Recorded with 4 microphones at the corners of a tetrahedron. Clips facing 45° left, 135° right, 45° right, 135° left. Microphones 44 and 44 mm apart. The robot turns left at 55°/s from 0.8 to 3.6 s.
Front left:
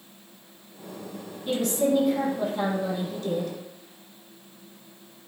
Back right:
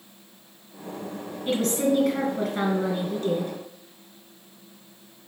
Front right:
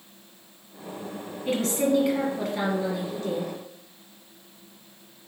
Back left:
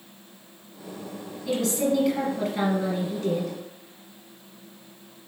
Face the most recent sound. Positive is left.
turn(degrees=160)